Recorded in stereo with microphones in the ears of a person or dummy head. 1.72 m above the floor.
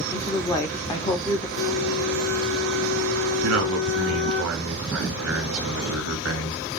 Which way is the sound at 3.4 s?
75° right (ahead or behind).